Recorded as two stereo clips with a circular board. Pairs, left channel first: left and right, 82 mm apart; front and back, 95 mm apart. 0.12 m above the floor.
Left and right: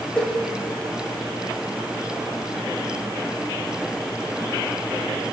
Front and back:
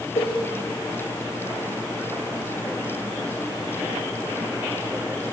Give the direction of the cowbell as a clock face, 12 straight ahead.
12 o'clock.